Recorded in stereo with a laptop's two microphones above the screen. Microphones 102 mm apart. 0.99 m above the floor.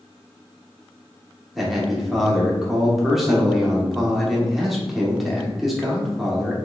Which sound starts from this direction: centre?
A man speaking, at 1.6 s.